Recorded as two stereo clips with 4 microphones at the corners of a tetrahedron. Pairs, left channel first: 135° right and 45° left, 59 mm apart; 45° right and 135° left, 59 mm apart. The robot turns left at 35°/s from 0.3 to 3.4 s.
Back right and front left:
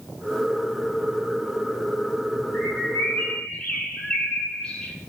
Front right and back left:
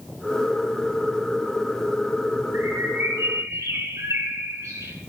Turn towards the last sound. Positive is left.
turn(degrees=150)